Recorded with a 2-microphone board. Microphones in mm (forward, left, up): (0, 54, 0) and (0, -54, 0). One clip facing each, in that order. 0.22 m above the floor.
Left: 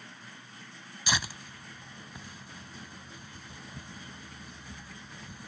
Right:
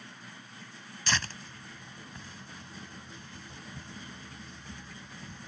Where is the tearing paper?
10° left (ahead or behind).